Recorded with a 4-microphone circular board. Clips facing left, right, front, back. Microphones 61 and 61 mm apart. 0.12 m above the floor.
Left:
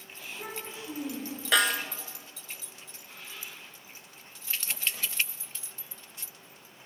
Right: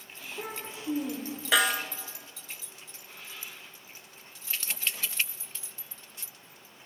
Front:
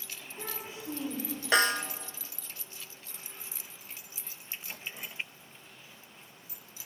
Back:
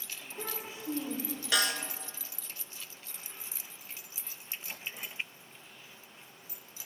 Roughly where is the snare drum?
Ahead.